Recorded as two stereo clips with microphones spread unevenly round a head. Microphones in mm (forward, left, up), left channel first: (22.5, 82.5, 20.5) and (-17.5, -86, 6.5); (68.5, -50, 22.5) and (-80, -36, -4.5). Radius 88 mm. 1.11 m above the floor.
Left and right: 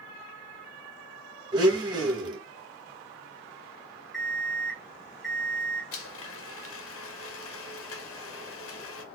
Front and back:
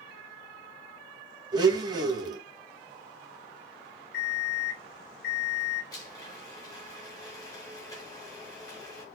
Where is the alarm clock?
10° right, 1.6 m.